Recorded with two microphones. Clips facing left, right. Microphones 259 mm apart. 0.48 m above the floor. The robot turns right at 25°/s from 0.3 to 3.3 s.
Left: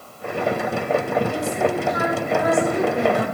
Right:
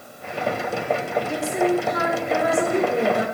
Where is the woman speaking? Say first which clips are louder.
Right 1 dB; 95° right, 7 m; by 3.2 s 45° right, 7 m.